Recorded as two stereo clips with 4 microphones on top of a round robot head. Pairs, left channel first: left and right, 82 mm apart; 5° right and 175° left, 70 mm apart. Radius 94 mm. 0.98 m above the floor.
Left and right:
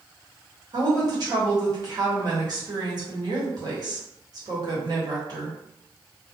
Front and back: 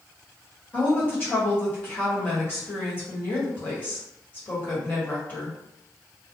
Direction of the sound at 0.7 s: 65° right.